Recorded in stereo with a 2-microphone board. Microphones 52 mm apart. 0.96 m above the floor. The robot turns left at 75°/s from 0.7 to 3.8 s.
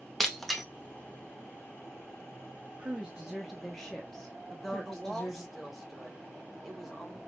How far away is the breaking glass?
About 0.7 m.